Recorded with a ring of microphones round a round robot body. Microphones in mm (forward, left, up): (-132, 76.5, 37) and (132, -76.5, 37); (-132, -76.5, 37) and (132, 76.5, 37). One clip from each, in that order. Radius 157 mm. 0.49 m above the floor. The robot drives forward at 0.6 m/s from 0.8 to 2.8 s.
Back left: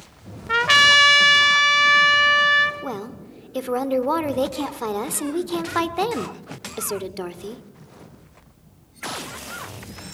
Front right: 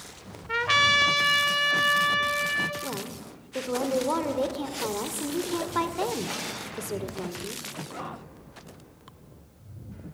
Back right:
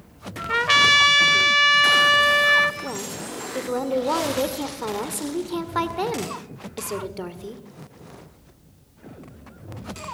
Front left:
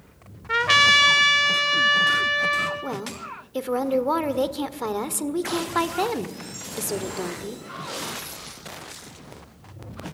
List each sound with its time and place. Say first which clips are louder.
0.5 s a trumpet: back left 7 dB, even; 110° left, 1.6 m; by 2.7 s 150° left, 2 m
2.8 s a woman speaking: back left 4 dB, even; 100° left, 1.6 m